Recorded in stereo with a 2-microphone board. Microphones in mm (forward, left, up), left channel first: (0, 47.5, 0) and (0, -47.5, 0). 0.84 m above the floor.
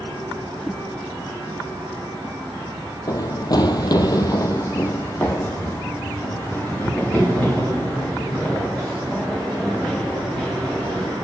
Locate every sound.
0.6 s a whoosh: centre (ahead or behind), 0.8 m
3.1 s running footsteps: 40° left (ahead or behind), 1.2 m; by 11.2 s 10° left (ahead or behind), 7 m